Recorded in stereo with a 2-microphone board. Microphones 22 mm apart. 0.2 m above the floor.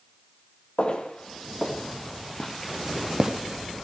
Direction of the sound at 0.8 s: 55° left (ahead or behind).